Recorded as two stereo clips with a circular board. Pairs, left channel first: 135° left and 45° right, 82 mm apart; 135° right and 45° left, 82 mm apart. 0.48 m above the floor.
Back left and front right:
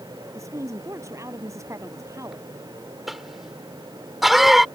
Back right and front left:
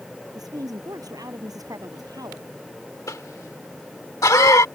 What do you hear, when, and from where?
0.3 s a woman speaking: 5° left
3.1 s a cough: 130° right